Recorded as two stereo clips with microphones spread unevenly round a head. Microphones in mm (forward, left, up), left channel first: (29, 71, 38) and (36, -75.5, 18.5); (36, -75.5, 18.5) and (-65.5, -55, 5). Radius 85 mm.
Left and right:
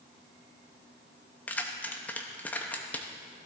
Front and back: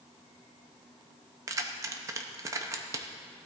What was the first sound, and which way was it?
Keys jangling, 135° left.